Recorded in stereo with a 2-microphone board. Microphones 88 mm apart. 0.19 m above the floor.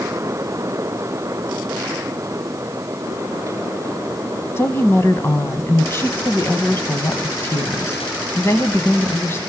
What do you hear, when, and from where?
4.6 s a woman speaking: 30° left (ahead or behind), 1.1 m